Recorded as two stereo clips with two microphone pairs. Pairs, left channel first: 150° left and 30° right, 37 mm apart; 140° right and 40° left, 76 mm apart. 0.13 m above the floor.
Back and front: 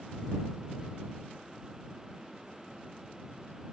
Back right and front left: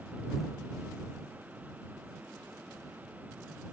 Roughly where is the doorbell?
I don't hear a doorbell.